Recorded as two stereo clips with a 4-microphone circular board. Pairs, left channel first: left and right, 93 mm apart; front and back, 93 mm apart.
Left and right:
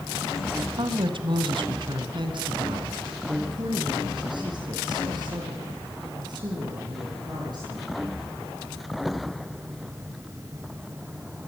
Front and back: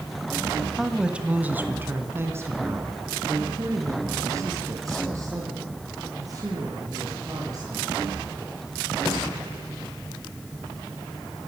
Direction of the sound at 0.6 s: 85° right.